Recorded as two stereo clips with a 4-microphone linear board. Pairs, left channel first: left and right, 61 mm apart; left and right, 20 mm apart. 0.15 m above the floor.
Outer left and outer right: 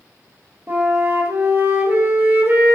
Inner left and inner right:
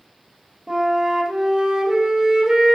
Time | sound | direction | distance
0.7 | a flute | 35° right (ahead or behind) | 1.9 m